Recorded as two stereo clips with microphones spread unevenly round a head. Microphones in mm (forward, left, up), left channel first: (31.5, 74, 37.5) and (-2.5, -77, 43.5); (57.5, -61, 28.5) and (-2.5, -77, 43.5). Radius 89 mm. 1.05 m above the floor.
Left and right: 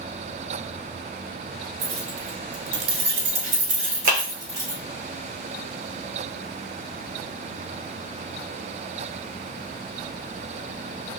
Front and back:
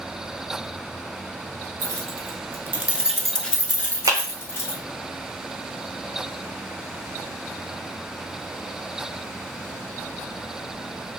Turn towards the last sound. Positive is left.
turn(degrees=-135)